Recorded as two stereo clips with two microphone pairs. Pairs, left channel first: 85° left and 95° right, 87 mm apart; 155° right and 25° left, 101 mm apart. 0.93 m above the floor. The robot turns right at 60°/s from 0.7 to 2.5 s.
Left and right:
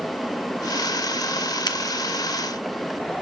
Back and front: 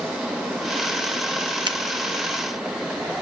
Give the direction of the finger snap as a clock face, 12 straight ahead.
10 o'clock.